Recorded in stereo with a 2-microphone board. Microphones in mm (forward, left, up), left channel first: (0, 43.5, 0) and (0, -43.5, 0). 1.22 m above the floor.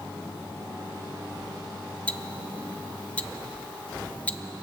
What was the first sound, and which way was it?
Ticking, 15° left (ahead or behind).